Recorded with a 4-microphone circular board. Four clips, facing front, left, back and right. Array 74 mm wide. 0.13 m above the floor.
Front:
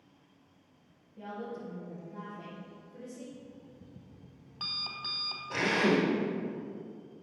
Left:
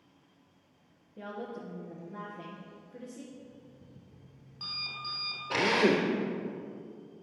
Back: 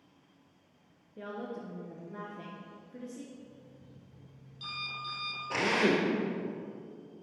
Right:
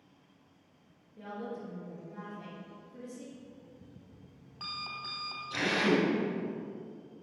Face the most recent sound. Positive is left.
turn(degrees=105)